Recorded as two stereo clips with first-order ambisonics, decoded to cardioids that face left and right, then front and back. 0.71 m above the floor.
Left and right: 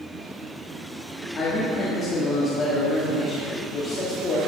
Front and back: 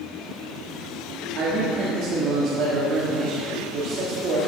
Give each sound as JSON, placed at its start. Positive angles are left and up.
{"t": 1.4, "sound": "a man speaking", "azimuth_deg": 150, "distance_m": 1.4}